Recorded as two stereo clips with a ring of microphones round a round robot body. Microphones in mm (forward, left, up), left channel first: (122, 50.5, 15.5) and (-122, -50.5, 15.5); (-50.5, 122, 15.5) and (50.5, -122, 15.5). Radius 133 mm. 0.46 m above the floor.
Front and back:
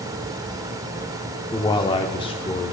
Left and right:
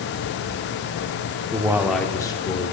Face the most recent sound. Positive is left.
turn(degrees=75)